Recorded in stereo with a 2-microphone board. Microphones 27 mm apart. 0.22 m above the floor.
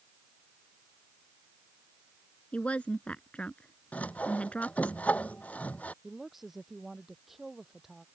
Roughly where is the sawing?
Left.